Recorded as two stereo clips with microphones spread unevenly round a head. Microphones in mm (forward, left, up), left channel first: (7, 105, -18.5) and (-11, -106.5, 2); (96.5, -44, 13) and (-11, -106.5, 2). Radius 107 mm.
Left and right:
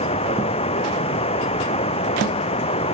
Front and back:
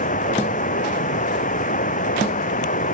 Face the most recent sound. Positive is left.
turn(degrees=20)